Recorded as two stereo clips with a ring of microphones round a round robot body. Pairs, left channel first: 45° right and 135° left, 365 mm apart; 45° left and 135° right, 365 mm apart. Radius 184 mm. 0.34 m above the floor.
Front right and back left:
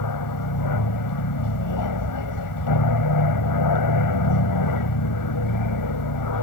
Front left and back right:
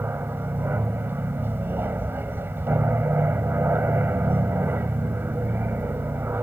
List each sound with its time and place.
0.0 s an aircraft: 50° right